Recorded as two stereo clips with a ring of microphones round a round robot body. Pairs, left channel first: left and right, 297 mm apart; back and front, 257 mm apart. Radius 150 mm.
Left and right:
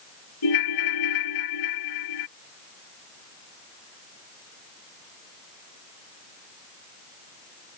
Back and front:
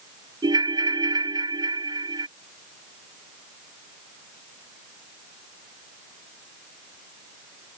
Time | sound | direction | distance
0.4 | a ringtone | 75° left | ?